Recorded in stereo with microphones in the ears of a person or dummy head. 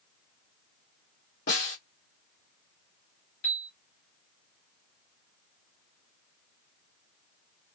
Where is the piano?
70° left (ahead or behind), 1.9 m.